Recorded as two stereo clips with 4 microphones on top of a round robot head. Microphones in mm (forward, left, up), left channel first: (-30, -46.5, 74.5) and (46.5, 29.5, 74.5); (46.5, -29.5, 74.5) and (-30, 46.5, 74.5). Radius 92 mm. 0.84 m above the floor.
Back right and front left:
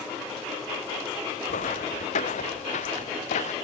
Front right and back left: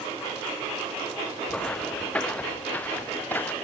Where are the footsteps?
130° right; by 3.5 s 120° right.